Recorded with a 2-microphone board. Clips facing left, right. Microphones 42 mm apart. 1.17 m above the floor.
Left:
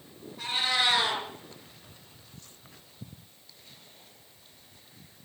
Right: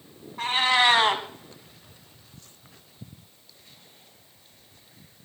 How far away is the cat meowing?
About 2 m.